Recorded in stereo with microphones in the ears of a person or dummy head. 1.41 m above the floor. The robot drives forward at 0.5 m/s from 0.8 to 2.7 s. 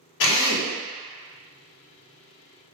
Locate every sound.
0.2 s a drill: 65° left (ahead or behind), 0.7 m